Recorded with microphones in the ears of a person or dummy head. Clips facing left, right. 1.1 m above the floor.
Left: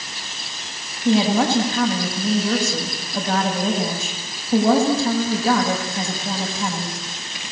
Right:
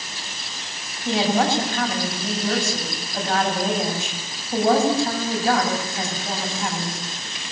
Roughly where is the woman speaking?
Left.